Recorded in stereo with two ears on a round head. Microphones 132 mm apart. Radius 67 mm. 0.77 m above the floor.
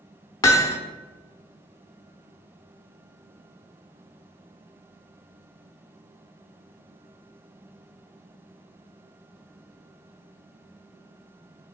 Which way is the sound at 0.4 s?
25° left (ahead or behind).